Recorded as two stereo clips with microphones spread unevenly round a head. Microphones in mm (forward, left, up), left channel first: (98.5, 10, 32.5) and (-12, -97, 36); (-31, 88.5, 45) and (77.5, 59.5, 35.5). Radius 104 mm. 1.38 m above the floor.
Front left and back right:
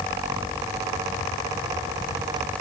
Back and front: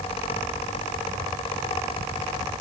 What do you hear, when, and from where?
Only background noise.